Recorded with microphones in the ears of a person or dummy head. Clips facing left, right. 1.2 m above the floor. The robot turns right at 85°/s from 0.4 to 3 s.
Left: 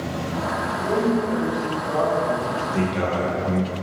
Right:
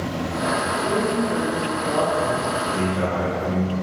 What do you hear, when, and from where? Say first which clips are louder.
0.7 s a man speaking: left 5 dB; 150° left, 0.8 m; by 2.6 s 40° right, 0.8 m
2.7 s a man speaking: left 2 dB; 30° left (ahead or behind), 0.9 m; by 3.7 s 50° left (ahead or behind), 0.9 m